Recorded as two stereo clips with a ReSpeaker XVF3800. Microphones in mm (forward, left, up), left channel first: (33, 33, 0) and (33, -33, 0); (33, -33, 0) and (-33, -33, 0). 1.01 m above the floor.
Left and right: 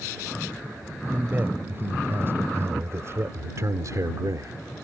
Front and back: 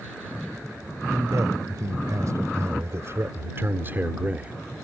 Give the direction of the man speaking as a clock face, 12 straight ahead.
5 o'clock.